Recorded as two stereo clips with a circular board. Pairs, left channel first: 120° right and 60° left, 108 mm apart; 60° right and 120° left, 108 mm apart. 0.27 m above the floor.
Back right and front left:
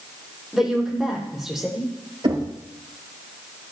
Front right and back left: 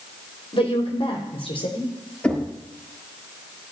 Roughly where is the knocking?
Ahead.